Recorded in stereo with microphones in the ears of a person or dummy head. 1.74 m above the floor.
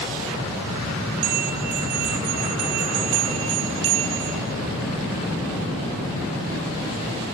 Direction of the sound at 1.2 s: 85° right.